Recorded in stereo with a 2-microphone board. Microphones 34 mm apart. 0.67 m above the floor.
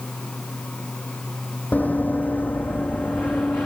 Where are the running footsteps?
60° left (ahead or behind), 1.2 m; by 3.7 s 75° left (ahead or behind), 2.5 m.